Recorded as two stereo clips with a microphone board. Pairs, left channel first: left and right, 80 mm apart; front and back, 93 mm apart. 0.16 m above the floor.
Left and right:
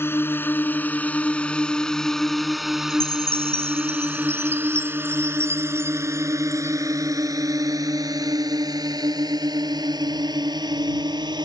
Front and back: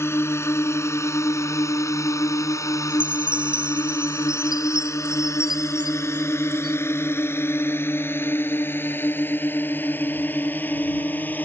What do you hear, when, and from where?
0.0 s a drone: 45° left; by 11.4 s 70° right
2.9 s a chime: 145° right